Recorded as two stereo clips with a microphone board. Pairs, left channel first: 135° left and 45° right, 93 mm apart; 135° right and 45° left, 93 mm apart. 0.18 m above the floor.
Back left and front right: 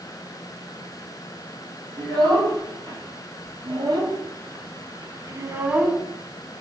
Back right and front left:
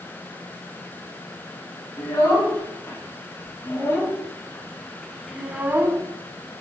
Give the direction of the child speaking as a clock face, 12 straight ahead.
3 o'clock.